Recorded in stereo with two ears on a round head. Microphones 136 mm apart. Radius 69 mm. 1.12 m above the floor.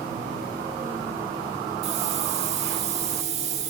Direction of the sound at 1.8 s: 45° right (ahead or behind).